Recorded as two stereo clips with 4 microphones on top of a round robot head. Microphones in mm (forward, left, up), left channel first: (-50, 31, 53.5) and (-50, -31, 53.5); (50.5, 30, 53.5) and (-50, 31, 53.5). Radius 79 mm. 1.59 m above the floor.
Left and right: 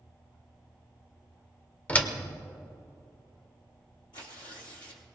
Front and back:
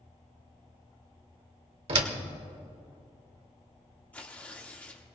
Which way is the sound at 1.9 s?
155° left.